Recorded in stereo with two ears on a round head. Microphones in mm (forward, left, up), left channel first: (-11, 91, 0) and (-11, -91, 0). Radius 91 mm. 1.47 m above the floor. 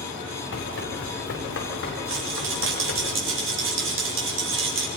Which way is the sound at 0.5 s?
65° left (ahead or behind).